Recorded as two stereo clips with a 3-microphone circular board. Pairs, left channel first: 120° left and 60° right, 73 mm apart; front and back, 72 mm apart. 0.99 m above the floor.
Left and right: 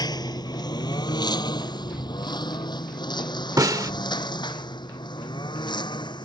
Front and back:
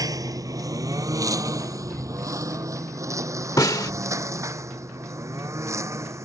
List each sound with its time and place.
0.0 s a lawn mower: 145° left; by 6.2 s 130° left
3.6 s a snare drum: 30° right